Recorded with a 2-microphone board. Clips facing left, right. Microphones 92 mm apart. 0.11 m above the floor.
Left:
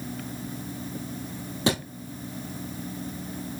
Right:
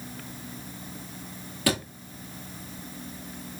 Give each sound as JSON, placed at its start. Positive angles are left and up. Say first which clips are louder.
{"t": 1.7, "sound": "a thud", "louder": "left 1 dB", "side_deg": 25, "distance_m": 1.6}